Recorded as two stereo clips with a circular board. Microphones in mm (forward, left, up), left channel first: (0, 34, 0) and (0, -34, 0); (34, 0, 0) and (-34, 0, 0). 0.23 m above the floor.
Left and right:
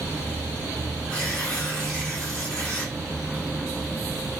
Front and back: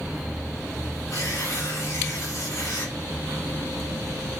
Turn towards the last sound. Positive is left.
turn(degrees=15)